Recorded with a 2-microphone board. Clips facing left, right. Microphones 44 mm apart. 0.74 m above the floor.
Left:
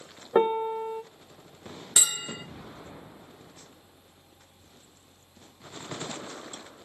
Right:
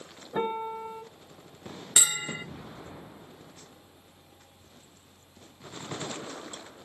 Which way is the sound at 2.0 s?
30° right (ahead or behind).